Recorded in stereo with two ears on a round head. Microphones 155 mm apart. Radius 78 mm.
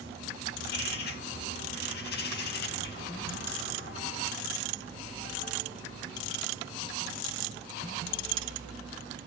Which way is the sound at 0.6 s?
65° left (ahead or behind).